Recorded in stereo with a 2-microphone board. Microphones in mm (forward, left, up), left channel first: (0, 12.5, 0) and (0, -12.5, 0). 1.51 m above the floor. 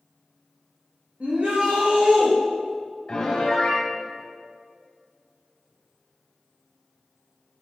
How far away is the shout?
About 3 m.